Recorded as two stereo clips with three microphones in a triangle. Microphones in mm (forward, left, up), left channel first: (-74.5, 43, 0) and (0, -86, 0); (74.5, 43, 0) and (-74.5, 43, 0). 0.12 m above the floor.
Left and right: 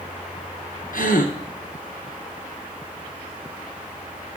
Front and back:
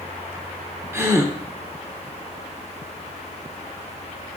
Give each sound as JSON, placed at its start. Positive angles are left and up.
{"t": 0.9, "sound": "a gasp", "azimuth_deg": 110, "distance_m": 1.6}